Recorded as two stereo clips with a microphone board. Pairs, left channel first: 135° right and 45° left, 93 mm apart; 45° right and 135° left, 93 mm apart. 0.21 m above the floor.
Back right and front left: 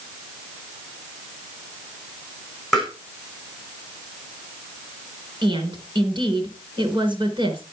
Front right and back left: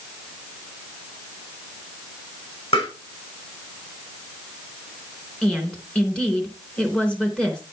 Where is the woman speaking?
30° left, 3 m.